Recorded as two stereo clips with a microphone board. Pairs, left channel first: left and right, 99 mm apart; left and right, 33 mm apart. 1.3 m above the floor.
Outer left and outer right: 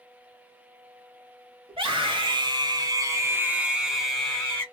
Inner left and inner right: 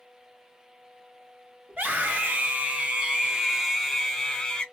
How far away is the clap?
I don't hear a clap.